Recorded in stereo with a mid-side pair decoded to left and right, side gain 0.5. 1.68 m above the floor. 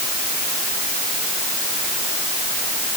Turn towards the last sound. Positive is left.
No sound to turn to.